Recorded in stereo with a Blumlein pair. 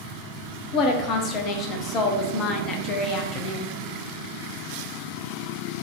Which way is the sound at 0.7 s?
30° left.